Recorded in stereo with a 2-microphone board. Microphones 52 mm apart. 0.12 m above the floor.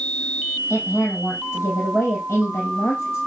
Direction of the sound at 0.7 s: 60° left (ahead or behind).